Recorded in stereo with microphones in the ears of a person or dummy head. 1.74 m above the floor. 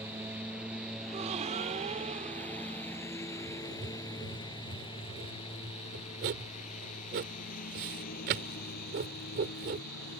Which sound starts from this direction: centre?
A lawn mower, at 0.0 s.